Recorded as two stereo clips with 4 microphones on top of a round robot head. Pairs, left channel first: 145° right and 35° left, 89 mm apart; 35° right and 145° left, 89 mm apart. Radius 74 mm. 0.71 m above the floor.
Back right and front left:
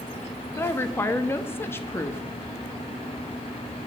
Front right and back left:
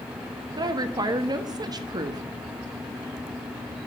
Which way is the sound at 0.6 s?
160° left.